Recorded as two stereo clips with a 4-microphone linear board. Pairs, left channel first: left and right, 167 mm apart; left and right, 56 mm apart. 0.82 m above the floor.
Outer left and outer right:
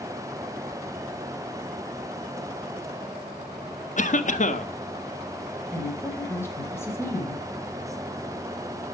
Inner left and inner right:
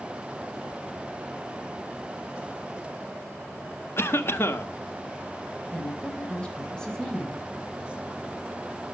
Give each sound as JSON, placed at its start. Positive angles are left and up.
{"t": 4.0, "sound": "a cough", "side_deg": 50, "distance_m": 1.5}
{"t": 5.7, "sound": "a woman speaking", "side_deg": 15, "distance_m": 4.0}